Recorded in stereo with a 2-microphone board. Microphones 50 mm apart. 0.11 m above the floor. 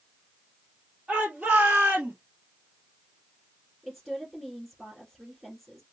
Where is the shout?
20° right (ahead or behind), 2.5 m; by 2.1 s 35° right (ahead or behind), 1.7 m.